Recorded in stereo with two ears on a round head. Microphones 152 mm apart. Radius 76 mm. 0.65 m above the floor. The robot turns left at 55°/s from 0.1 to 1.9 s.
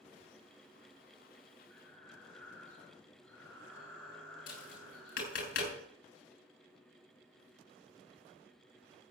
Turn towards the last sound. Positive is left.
turn(degrees=55)  # may be behind; listen again after turning